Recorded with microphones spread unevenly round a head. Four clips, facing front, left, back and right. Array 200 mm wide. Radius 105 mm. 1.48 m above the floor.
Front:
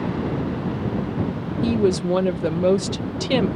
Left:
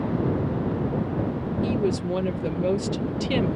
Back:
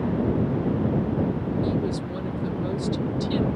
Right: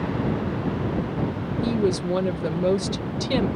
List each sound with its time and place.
1.6 s a woman speaking: 5° right